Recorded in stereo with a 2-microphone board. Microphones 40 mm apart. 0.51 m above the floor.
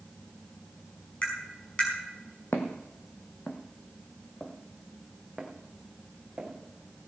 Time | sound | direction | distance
1.2 | tapping | 30° left (ahead or behind) | 5 m
2.5 | footsteps | 70° left (ahead or behind) | 1.5 m